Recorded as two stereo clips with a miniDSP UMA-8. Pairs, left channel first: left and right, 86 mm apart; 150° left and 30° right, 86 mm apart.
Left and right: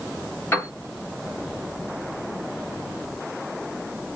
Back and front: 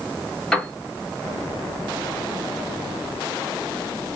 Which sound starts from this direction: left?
A piano, at 0.5 s.